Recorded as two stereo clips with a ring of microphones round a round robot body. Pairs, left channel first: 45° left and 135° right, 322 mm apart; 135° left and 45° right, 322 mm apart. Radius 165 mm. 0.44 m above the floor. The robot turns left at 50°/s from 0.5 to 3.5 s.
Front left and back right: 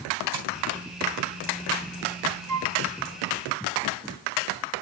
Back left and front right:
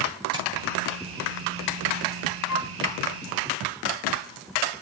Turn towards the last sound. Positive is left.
turn(degrees=130)